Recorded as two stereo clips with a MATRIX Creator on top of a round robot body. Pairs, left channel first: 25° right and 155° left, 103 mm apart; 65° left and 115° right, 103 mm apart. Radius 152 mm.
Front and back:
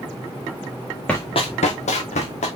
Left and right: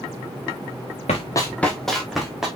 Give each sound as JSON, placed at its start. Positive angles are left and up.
{"t": 1.1, "sound": "running footsteps", "azimuth_deg": 55, "distance_m": 0.8}